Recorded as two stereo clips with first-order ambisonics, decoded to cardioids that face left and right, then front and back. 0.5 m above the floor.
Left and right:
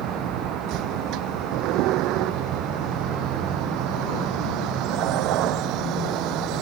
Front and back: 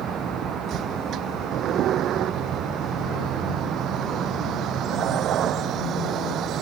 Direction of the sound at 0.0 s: 125° right.